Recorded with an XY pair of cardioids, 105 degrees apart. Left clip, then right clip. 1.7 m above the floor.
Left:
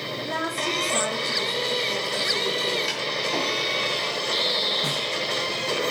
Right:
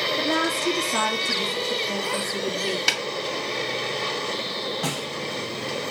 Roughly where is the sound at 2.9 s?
Ahead right.